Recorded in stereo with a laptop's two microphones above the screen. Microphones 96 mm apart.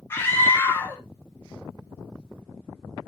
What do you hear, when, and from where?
0.1 s a scream: 25° left (ahead or behind), 0.7 m